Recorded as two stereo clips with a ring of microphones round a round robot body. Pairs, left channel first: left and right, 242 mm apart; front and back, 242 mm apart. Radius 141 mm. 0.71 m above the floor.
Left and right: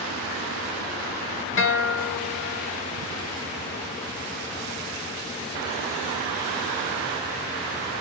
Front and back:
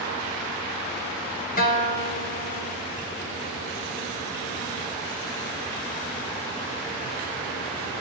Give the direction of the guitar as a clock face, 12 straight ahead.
10 o'clock.